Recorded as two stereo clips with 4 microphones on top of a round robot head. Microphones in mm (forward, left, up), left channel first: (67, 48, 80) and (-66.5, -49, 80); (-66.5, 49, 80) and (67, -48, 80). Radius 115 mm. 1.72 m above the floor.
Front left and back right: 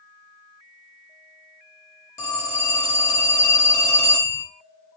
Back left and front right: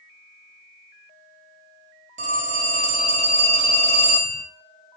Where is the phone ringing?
30° right, 0.6 m.